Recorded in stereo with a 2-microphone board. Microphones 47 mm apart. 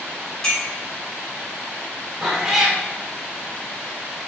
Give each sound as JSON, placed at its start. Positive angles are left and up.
{"t": 0.4, "sound": "a clink", "side_deg": 20, "distance_m": 1.5}
{"t": 2.2, "sound": "a cat meowing", "side_deg": -5, "distance_m": 1.2}